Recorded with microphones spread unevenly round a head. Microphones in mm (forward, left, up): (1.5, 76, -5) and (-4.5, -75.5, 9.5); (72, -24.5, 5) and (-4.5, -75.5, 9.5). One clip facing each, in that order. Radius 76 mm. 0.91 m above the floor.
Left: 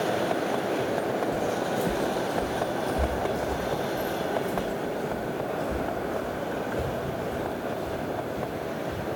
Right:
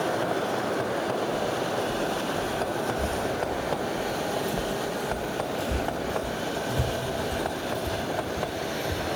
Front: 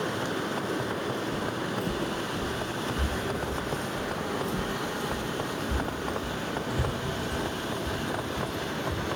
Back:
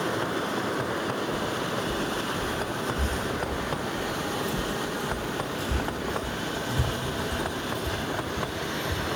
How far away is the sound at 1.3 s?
About 1.4 m.